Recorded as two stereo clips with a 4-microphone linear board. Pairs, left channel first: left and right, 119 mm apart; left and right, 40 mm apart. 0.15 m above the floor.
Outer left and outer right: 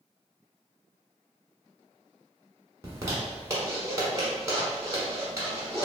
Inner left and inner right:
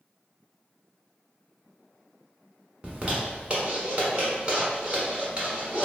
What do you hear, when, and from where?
2.8 s a zipper: 25° right (ahead or behind), 1.0 m